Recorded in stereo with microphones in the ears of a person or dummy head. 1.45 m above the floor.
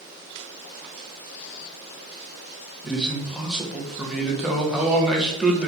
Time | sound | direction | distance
2.8 | a man speaking | centre (ahead or behind) | 0.7 m